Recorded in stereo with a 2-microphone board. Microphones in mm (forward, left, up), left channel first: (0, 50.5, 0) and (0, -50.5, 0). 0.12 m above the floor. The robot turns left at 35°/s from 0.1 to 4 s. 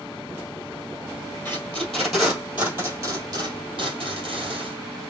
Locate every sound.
1.4 s tape being pulled: 20° left (ahead or behind), 1.9 m; by 4.8 s 60° right (ahead or behind), 1.9 m